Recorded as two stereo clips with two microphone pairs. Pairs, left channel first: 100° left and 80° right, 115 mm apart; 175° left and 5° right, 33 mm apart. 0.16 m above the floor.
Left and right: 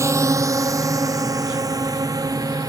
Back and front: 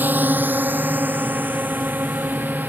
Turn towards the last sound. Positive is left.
turn(degrees=-20)